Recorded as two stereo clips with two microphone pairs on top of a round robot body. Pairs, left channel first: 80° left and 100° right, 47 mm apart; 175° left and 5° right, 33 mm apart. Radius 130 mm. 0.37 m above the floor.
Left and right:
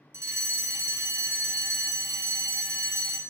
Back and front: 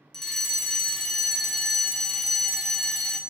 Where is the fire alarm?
105° right, 4 m.